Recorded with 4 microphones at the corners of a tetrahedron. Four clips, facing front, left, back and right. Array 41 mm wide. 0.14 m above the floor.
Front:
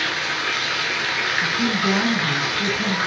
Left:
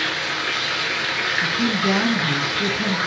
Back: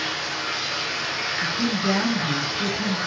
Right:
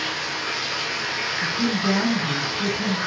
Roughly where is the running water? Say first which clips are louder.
Left 4 dB, front 4 dB; ahead left.